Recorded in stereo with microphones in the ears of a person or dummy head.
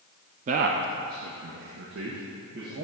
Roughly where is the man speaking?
Right.